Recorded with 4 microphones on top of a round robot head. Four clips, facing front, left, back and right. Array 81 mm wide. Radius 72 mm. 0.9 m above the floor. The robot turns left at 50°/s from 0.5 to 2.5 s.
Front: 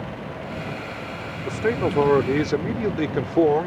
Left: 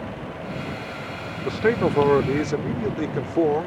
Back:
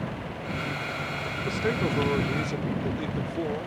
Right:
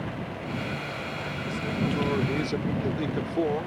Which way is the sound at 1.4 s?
75° left.